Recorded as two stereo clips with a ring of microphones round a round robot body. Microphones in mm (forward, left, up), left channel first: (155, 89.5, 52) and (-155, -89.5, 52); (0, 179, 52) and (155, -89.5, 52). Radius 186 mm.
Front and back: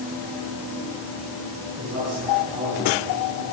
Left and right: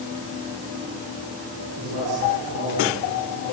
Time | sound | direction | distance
1.8 | a man speaking | 100° right | 9.5 m